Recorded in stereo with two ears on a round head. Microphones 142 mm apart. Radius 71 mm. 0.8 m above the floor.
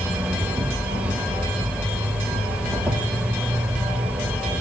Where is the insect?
10° right (ahead or behind), 0.9 m.